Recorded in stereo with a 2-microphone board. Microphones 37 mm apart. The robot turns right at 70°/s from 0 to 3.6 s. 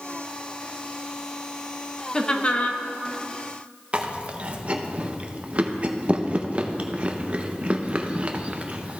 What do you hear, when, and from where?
2.1 s laughter: 20° left, 0.7 m; by 2.8 s 70° left, 0.7 m
3.9 s chewing: 35° right (ahead or behind), 0.6 m